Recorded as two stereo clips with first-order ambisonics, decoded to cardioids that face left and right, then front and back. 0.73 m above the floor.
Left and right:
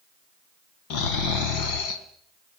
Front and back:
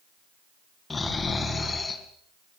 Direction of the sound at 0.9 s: 80° left.